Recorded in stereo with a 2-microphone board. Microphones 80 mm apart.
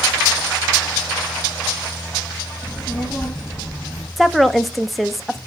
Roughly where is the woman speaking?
Centre.